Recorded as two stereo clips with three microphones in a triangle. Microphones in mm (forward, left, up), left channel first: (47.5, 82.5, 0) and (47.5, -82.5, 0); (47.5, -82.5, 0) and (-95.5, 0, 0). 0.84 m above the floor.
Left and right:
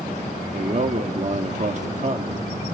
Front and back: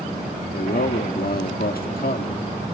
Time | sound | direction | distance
0.5 | a man speaking | 50° right | 1.8 m